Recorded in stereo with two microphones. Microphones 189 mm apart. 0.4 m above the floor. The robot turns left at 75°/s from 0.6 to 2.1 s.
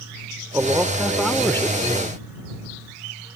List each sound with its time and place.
0.5 s a man speaking: 15° right (ahead or behind); by 2.1 s 20° left (ahead or behind)